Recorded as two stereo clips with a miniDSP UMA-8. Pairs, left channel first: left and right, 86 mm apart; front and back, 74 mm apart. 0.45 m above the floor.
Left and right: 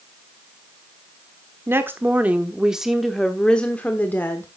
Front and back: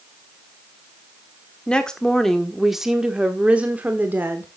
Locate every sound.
1.7 s a woman speaking: 65° right, 1.3 m; by 4.5 s 135° left, 1.4 m